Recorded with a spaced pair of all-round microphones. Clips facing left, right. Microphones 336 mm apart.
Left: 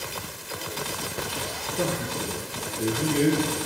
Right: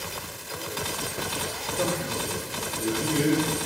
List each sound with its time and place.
1.8 s a man speaking: 45° left (ahead or behind), 1.0 m